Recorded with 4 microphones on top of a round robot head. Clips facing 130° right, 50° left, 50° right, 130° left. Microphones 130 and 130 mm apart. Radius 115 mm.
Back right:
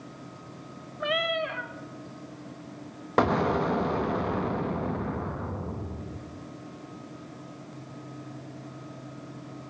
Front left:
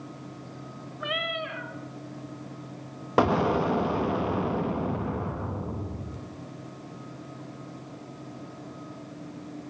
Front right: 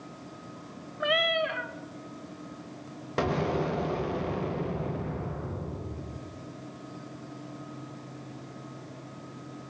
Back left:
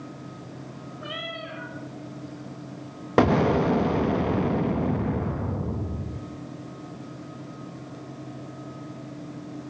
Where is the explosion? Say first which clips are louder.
Front left 1 dB, back left 8 dB; 130° left, 1.2 m.